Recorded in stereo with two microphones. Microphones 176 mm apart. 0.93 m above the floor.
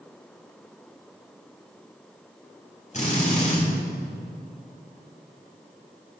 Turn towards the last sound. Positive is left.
turn(degrees=45)  # may be behind; listen again after turning